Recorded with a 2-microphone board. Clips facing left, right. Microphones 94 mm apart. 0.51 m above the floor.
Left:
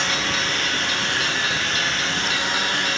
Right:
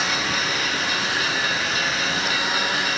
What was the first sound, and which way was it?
A lawn mower, 5° right (ahead or behind).